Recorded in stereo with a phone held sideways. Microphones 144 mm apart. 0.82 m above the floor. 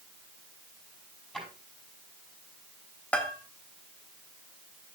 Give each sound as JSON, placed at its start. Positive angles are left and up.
{"t": 1.3, "sound": "a drawer", "side_deg": 5, "distance_m": 5.0}
{"t": 3.1, "sound": "a bell", "side_deg": 10, "distance_m": 1.1}